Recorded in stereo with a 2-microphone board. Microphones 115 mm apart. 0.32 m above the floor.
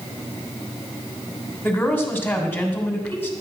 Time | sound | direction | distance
1.6 | a woman speaking | 15° left (ahead or behind) | 2.5 m